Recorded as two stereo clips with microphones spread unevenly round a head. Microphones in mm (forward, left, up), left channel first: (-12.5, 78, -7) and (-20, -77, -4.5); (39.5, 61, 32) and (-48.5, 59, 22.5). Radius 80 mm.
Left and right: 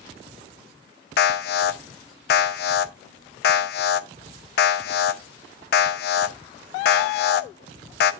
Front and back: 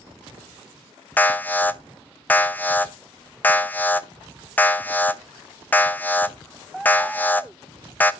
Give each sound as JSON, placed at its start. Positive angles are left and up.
{"t": 1.2, "sound": "an alarm", "azimuth_deg": 75, "distance_m": 0.6}